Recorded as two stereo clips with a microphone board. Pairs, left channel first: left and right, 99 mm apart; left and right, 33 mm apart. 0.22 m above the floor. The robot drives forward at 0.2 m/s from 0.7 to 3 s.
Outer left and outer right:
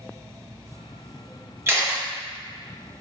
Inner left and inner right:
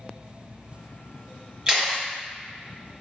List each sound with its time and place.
1.7 s a camera shutter: 25° right (ahead or behind), 1.1 m